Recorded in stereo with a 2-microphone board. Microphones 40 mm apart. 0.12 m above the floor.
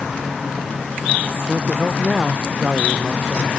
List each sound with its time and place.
1.5 s a man speaking: 15° right (ahead or behind)